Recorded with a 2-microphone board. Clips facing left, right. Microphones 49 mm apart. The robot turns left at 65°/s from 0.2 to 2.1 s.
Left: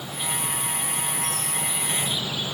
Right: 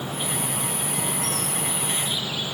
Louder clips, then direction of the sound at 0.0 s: Right 2 dB; 40° right.